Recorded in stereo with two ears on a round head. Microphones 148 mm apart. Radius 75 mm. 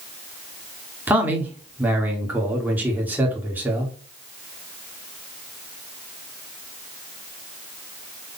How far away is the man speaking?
About 1.2 m.